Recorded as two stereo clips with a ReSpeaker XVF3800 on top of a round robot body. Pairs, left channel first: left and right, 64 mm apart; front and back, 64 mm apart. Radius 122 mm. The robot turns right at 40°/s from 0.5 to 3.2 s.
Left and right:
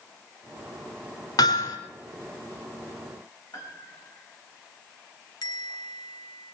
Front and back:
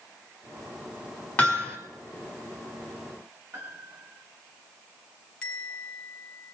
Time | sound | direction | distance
1.4 | hammering | 70° left | 4 m
3.5 | a piano | 120° left | 6.5 m
5.4 | a bell | 75° left | 1.8 m